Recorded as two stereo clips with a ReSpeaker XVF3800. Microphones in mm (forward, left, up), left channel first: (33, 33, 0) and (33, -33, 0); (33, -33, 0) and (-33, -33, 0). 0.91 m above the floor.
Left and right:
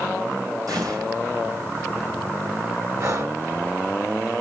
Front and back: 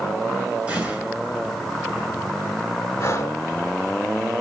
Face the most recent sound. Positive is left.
turn(degrees=-50)